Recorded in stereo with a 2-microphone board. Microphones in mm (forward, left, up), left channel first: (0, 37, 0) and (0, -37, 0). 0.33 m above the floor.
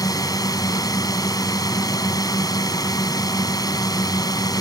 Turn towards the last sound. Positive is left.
turn(degrees=60)  # may be behind; listen again after turning